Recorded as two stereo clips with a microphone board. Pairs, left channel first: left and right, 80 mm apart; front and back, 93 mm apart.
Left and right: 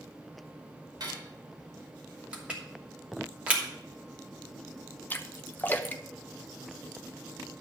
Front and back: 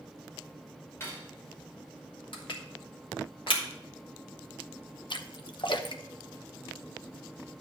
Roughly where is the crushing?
Ahead.